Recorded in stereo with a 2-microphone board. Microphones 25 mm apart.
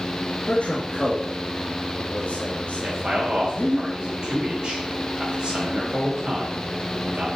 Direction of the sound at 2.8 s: 40° right (ahead or behind).